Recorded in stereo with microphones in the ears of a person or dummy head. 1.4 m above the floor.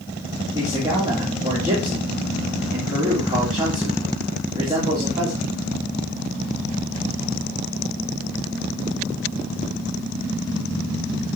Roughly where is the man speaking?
Right.